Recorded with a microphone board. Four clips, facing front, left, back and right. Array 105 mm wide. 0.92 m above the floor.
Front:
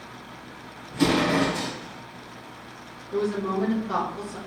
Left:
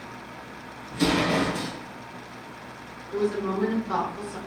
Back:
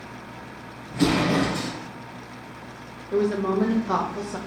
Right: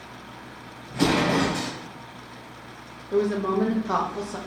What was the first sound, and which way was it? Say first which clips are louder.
An explosion: right 2 dB, even; 110° right.